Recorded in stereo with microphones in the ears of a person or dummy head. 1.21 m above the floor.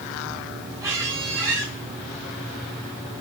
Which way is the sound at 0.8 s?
15° right (ahead or behind).